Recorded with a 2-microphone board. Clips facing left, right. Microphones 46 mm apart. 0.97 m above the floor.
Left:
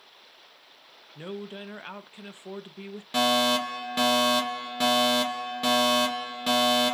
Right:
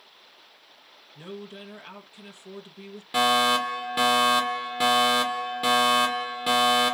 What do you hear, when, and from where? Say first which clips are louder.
1.1 s a woman speaking: left 3 dB; 30° left (ahead or behind), 0.7 m
3.1 s a fire alarm: right 2 dB; 5° right (ahead or behind), 1.5 m